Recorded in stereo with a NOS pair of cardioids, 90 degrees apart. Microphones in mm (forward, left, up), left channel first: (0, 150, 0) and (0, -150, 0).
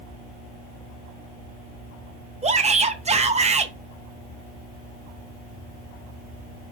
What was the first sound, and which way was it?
A shout, 20° right.